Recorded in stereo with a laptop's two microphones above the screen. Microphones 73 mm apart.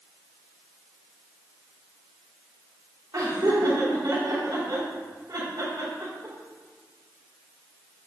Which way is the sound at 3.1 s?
70° right (ahead or behind).